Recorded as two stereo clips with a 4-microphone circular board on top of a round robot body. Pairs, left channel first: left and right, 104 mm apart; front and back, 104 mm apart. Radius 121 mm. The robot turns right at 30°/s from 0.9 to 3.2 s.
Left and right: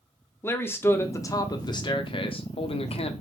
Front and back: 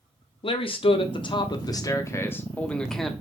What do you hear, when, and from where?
0.4 s a man speaking: 25° left, 0.6 m; by 3.1 s 90° left, 0.6 m